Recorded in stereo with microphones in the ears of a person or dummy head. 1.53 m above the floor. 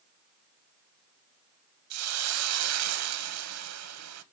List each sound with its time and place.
1.9 s a hiss: 80° right, 0.9 m